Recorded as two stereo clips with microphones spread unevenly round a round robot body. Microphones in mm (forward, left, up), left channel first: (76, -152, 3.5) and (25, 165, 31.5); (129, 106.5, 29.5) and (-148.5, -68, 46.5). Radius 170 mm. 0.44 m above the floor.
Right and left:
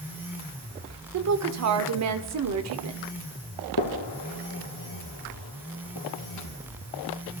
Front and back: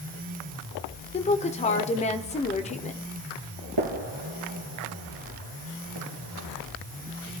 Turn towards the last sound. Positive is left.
turn(degrees=-125)